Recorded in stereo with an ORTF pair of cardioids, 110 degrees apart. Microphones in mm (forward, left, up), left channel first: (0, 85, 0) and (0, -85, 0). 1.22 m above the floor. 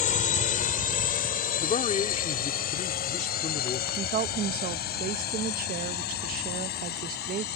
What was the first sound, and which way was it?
A drone, 50° left.